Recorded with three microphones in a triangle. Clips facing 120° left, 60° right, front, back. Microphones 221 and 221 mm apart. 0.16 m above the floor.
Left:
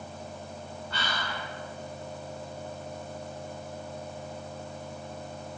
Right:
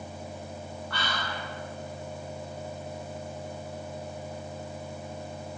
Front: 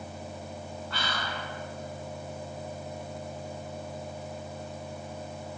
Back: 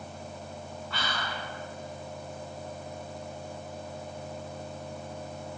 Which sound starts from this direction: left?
Whispering, at 0.9 s.